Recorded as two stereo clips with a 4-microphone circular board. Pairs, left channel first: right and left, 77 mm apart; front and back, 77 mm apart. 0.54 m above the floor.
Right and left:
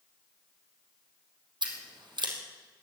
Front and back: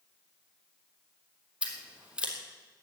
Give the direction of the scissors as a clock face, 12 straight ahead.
9 o'clock.